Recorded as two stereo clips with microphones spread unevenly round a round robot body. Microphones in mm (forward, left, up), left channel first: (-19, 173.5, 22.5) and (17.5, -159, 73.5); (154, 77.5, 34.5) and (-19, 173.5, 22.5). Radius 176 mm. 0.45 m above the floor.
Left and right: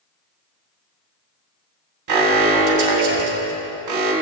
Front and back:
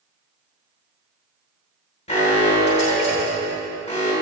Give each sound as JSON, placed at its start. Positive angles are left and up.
{"t": 2.1, "sound": "an alarm", "azimuth_deg": -85, "distance_m": 2.5}